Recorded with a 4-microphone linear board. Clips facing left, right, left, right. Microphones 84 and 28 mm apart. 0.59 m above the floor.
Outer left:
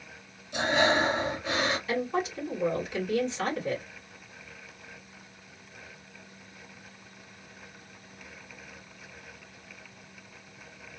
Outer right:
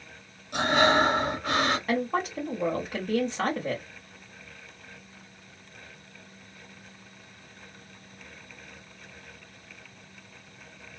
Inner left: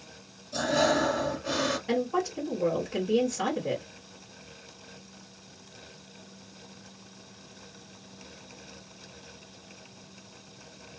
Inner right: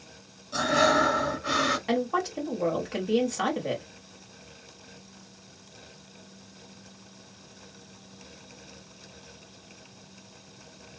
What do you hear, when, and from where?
0.5 s breathing: 60° right (ahead or behind), 1.5 m
1.9 s a woman speaking: 50° right (ahead or behind), 1.6 m